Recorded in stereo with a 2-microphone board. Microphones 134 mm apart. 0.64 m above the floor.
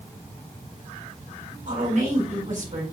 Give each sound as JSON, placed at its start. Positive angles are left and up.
{"t": 1.7, "sound": "a woman speaking", "side_deg": -65, "distance_m": 5.0}